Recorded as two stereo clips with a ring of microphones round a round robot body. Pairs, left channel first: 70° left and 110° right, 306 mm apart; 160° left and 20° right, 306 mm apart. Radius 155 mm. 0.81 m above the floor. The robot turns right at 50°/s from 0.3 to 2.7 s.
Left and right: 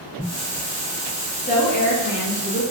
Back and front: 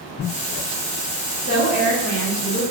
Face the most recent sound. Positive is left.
turn(degrees=100)